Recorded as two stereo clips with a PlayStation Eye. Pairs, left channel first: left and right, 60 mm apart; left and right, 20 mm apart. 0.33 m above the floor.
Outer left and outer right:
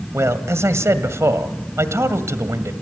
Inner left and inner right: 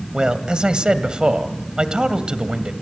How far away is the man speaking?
About 1.6 m.